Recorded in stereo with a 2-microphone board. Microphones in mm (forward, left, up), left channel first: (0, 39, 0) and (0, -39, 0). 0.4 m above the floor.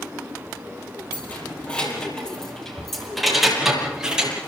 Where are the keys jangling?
20° left (ahead or behind), 9 m; by 4.3 s 10° right (ahead or behind), 7.5 m.